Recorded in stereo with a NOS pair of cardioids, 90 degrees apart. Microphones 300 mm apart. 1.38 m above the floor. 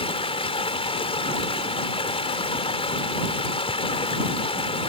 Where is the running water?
20° left.